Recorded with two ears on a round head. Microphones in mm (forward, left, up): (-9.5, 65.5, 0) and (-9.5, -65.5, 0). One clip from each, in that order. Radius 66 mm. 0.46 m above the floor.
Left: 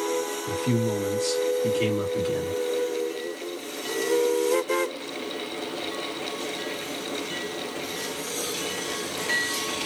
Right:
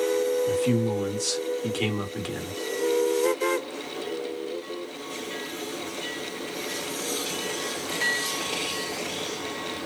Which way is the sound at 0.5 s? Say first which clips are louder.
Right 2 dB; 30° right (ahead or behind).